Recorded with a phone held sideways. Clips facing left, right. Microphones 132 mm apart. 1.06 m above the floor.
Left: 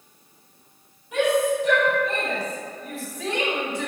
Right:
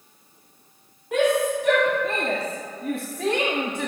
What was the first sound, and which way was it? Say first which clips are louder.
A shout: even; 70° right (ahead or behind).